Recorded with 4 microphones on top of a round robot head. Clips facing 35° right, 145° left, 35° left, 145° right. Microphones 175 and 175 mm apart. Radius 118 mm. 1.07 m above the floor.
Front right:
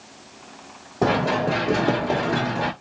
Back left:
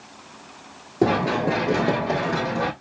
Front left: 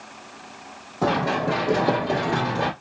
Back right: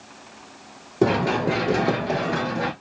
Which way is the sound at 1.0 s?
140° right.